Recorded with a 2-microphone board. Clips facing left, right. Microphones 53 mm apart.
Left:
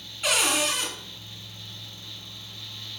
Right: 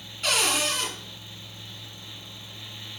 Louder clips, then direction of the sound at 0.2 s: Left 1 dB; 5° left (ahead or behind).